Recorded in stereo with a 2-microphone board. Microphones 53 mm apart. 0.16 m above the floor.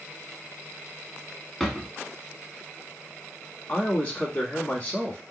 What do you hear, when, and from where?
1.6 s a drawer: 5° left (ahead or behind), 0.9 m
3.7 s a man speaking: 30° left (ahead or behind), 1.1 m